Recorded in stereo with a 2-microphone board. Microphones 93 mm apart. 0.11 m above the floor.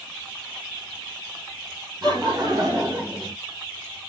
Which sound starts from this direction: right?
Laughter, at 2.0 s.